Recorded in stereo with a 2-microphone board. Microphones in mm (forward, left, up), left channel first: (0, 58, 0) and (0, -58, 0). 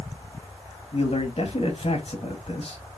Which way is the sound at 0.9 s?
60° left (ahead or behind).